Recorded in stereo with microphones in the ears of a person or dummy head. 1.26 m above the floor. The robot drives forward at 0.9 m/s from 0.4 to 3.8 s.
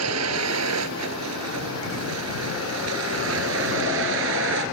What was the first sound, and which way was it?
A vehicle, 85° right.